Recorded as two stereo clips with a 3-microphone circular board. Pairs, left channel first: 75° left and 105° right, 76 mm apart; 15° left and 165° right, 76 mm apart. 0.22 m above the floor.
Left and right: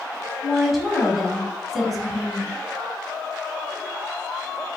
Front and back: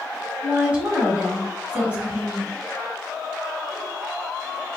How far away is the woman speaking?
About 1.1 m.